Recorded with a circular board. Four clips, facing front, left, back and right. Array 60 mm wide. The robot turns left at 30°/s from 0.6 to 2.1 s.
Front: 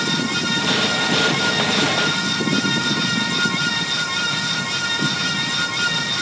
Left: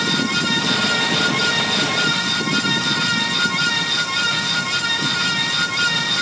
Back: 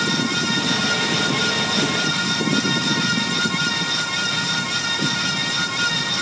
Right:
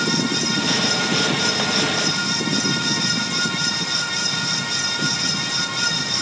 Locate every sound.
Only background noise.